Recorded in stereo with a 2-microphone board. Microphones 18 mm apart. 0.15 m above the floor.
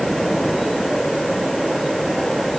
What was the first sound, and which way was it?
Only background noise.